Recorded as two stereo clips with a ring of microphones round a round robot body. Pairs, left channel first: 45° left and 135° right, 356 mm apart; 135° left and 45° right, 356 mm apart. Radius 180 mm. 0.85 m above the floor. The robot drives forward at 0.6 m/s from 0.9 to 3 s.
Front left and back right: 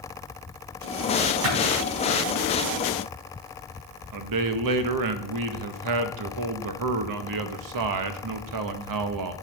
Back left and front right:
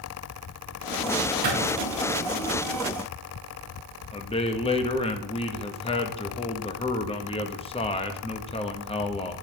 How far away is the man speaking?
About 0.9 m.